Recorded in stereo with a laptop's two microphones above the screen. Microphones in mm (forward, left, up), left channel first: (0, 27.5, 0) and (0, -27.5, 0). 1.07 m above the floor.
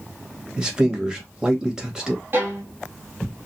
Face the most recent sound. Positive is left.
turn(degrees=-45)  # may be behind; listen again after turning